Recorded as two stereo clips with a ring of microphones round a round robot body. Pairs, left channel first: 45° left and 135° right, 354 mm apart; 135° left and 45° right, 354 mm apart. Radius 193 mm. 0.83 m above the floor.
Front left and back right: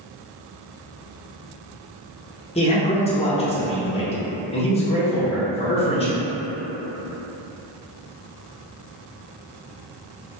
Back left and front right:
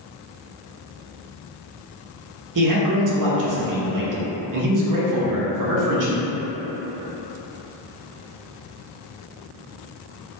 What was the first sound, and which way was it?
A man speaking, 25° right.